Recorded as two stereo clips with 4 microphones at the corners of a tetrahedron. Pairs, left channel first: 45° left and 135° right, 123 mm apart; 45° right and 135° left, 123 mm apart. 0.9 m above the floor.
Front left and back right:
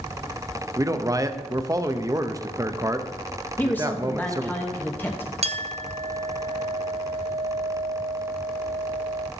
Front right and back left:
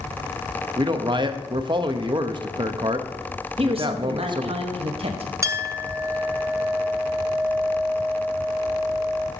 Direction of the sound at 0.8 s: 170° left.